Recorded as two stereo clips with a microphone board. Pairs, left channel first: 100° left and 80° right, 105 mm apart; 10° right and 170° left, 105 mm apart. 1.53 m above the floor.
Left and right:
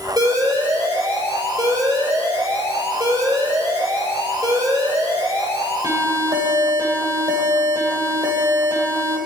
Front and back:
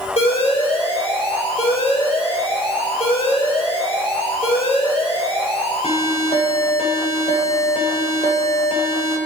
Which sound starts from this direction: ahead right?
An alarm, at 0.2 s.